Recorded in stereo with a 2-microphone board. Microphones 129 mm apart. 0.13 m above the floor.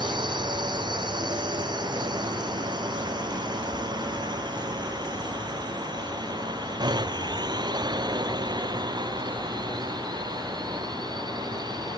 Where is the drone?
35° right (ahead or behind); by 12.0 s 30° right (ahead or behind).